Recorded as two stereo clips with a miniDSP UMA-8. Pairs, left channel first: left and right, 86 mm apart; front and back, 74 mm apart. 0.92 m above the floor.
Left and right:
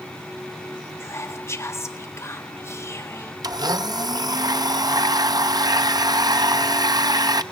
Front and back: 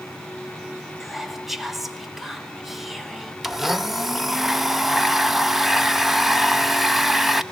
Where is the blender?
90° right, 0.7 m.